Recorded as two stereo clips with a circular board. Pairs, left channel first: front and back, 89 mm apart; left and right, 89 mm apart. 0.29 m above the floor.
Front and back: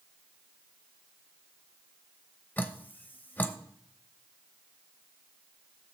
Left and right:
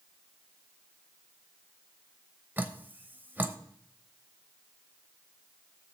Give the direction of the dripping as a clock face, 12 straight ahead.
1 o'clock.